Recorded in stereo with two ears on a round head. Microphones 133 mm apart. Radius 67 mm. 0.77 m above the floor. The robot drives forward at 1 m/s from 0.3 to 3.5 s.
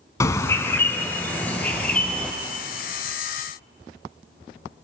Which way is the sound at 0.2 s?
20° left (ahead or behind).